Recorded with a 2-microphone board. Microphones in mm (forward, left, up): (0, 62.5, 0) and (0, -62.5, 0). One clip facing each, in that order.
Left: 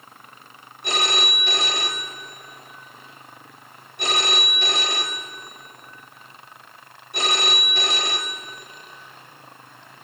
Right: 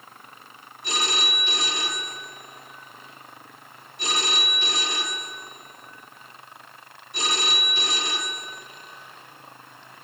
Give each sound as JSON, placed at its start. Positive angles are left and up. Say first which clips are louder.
{"t": 0.8, "sound": "a phone ringing", "louder": "left 4 dB", "side_deg": 60, "distance_m": 1.5}